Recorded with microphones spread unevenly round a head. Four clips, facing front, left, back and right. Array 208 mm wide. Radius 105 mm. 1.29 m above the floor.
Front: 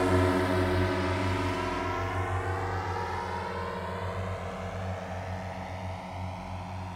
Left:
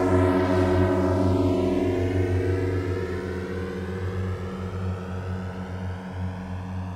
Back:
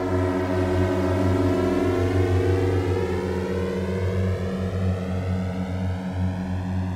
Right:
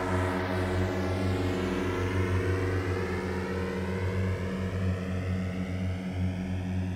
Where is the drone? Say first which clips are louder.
Left 9 dB, back 2 dB; 95° left; by 7.0 s 170° right.